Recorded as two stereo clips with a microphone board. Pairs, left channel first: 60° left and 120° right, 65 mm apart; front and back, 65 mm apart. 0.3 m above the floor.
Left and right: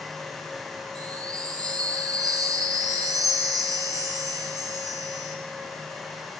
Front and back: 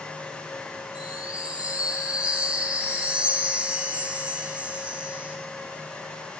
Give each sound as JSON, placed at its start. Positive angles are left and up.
{"t": 0.9, "sound": "a chime", "azimuth_deg": -110, "distance_m": 1.6}